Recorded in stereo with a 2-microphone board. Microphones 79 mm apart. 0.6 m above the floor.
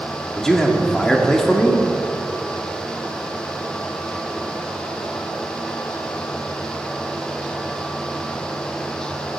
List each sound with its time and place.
0.4 s a man speaking: 5° left (ahead or behind), 1.5 m